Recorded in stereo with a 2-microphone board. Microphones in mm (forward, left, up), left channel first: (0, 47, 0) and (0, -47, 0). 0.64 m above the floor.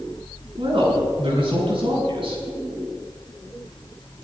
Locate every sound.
0.6 s a woman speaking: 65° right (ahead or behind), 6 m